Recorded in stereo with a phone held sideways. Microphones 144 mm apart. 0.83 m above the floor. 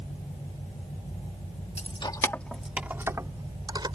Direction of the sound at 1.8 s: 50° left (ahead or behind).